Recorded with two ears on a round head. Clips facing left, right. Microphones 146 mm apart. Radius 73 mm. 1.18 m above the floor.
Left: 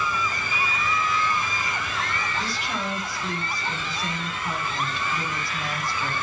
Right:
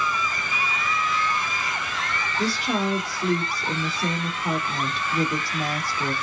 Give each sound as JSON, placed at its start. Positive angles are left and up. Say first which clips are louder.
{"t": 2.4, "sound": "a woman speaking", "louder": "right 6 dB", "side_deg": -35, "distance_m": 2.5}